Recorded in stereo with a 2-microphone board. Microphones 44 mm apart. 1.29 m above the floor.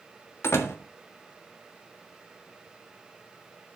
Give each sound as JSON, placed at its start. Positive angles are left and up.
{"t": 0.4, "sound": "a door slam", "side_deg": 75, "distance_m": 1.6}